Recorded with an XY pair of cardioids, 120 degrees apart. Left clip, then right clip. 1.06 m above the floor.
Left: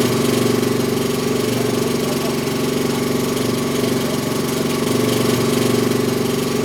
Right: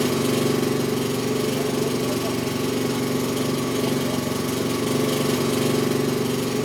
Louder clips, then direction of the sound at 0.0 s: Left 5 dB; 35° left.